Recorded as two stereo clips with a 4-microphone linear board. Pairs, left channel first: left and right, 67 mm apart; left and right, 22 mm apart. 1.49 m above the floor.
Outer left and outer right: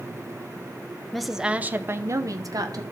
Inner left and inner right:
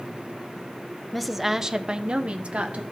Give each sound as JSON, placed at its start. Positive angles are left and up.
{"t": 1.1, "sound": "a woman speaking", "side_deg": 5, "distance_m": 0.6}